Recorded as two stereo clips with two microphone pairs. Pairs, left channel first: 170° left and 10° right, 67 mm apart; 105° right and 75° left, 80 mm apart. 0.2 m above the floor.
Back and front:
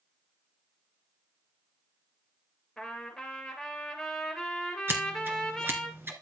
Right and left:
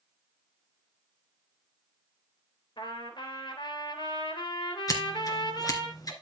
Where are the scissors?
65° right, 2.5 m.